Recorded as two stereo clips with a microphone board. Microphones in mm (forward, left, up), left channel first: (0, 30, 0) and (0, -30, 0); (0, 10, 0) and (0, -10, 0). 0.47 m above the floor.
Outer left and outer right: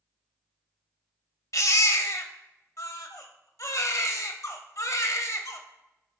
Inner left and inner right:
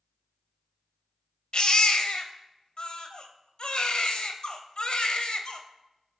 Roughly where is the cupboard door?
I don't hear a cupboard door.